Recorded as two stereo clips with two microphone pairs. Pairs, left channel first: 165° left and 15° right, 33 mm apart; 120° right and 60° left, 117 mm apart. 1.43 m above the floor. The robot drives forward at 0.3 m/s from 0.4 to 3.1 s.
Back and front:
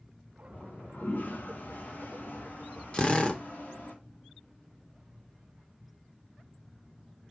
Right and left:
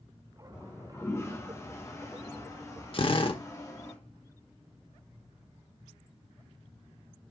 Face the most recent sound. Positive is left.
turn(degrees=-150)